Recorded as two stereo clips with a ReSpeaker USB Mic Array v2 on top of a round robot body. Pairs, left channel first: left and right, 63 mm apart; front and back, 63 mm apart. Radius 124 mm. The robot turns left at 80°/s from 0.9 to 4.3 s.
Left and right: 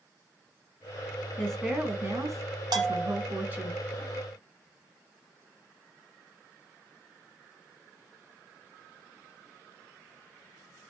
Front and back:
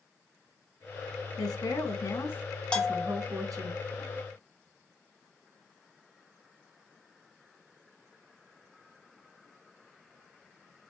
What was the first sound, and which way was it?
A woman speaking, 20° left.